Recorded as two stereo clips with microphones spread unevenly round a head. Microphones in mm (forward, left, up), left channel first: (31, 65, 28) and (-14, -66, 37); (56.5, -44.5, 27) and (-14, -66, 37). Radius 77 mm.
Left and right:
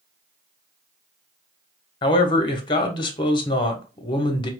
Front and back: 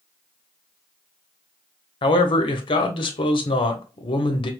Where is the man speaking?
10° left, 0.9 m.